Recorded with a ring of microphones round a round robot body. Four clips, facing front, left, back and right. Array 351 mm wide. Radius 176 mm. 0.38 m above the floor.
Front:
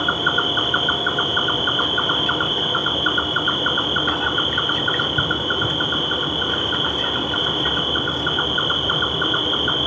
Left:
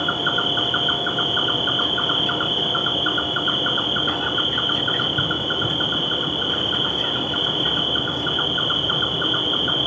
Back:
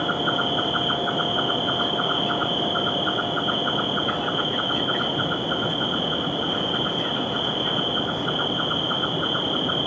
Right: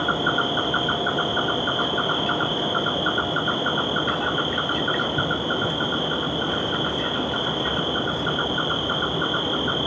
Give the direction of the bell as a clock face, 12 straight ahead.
No bell in this recording.